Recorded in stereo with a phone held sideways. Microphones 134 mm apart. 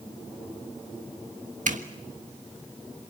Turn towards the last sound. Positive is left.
turn(degrees=-70)  # may be behind; listen again after turning